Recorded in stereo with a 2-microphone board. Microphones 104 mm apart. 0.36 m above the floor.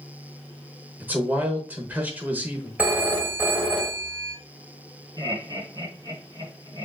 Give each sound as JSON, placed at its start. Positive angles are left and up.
{"t": 1.0, "sound": "a man speaking", "side_deg": -15, "distance_m": 1.1}
{"t": 2.8, "sound": "a phone ringing", "side_deg": -15, "distance_m": 1.1}
{"t": 5.2, "sound": "laughter", "side_deg": -35, "distance_m": 3.0}